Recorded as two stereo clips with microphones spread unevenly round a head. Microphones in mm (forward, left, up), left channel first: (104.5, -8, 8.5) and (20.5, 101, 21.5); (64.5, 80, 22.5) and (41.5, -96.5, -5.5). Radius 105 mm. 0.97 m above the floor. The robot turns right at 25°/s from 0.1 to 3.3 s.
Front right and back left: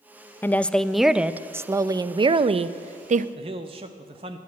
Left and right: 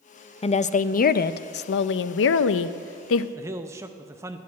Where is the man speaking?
170° right, 0.5 m.